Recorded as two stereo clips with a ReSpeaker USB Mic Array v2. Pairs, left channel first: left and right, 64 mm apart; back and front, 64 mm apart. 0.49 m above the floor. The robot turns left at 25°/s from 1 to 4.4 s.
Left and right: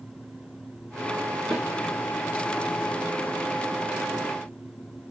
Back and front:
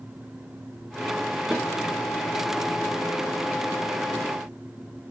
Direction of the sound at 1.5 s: 80° left.